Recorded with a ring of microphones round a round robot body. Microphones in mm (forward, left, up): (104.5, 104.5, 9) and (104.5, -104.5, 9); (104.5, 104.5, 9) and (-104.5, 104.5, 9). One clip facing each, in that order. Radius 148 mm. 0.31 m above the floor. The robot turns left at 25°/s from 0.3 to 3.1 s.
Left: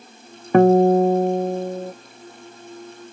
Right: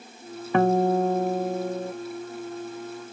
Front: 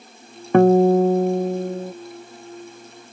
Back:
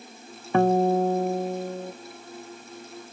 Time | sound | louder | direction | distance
0.5 | a guitar | left 8 dB, front 7 dB | 40° left | 0.6 m